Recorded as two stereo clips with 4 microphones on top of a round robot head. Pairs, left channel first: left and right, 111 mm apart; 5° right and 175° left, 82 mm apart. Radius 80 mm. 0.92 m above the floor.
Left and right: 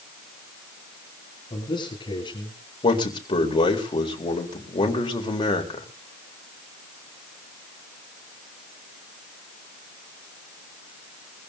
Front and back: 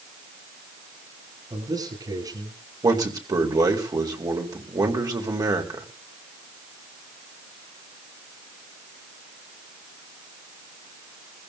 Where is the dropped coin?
No dropped coin in this recording.